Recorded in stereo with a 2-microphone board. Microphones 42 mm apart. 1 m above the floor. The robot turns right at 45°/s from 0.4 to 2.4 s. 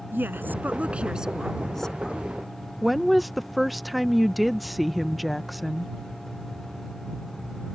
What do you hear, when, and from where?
0.1 s a woman speaking: 55° right; by 2.2 s 30° left
2.8 s a woman speaking: centre (ahead or behind)